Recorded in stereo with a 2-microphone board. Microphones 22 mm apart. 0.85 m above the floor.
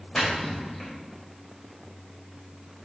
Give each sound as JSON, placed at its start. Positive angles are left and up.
{"t": 0.1, "sound": "a splash", "side_deg": 20, "distance_m": 4.5}